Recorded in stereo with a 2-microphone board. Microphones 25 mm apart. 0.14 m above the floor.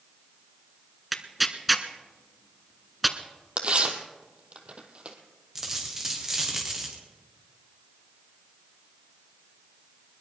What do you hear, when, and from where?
1.1 s tearing paper: 10° right (ahead or behind), 0.9 m
3.6 s tearing paper: 40° right (ahead or behind), 1.6 m
5.5 s a dropped coin: 10° right (ahead or behind), 4.5 m